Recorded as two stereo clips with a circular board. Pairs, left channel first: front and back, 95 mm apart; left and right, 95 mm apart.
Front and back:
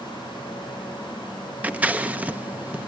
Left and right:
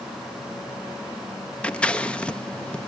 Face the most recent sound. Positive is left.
turn(degrees=145)